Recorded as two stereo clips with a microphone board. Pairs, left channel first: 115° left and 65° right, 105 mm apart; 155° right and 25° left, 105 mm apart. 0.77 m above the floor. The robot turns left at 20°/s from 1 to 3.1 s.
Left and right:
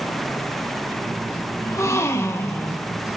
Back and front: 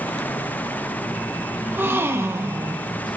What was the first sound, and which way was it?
A gasp, 80° left.